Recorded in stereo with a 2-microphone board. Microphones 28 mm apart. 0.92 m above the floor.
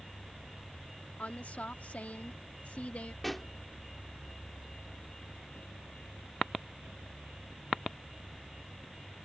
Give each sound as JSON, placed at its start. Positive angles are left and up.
{"t": 1.2, "sound": "a woman speaking", "side_deg": 70}
{"t": 3.2, "sound": "a pop", "side_deg": 10}